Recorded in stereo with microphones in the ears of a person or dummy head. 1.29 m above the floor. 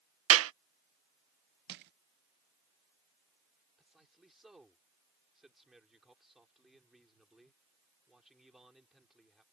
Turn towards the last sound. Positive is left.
turn(degrees=-5)  # may be behind; listen again after turning